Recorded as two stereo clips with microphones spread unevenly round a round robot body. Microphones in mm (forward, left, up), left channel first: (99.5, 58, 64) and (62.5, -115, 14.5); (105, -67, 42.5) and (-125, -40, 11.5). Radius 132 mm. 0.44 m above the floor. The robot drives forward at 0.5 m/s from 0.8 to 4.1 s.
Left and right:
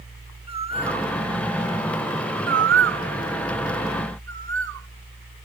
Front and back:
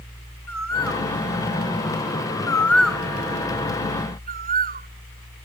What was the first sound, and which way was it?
A bird, 40° right.